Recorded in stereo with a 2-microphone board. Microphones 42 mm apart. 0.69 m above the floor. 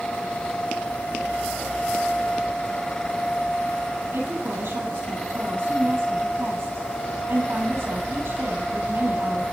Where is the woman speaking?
70° right (ahead or behind), 8.5 m.